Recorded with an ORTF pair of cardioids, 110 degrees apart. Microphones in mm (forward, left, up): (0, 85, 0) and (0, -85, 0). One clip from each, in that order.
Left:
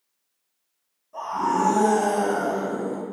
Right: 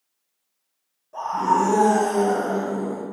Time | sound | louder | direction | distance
1.1 | a scream | right 3 dB | 25° right | 0.9 m